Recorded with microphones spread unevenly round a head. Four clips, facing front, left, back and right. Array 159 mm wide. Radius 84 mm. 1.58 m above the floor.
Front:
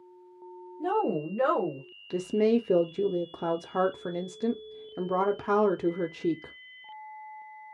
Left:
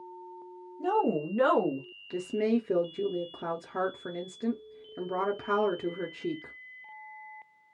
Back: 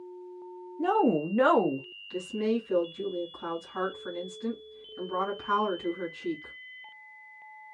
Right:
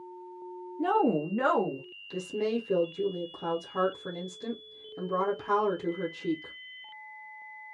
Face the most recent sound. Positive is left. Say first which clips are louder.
# left 2 dB, front 5 dB
turn(degrees=10)